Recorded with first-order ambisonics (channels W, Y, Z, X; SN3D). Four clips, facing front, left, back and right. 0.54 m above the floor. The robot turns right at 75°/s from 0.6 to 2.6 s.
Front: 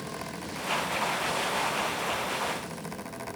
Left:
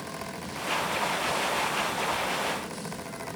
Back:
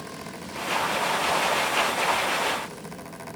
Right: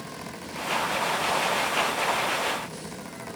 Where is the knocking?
No knocking in this recording.